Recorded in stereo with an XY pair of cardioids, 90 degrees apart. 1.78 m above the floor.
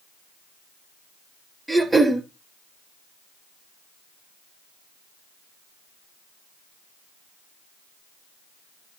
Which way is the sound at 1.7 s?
15° right.